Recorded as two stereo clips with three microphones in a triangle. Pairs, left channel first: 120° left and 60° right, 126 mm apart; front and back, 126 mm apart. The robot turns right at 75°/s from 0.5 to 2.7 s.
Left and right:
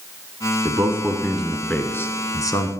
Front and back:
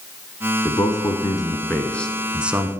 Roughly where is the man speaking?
Ahead right.